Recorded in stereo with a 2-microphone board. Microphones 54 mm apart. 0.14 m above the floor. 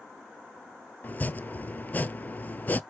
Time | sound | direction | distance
1.0 | chopping | 35° left (ahead or behind) | 0.6 m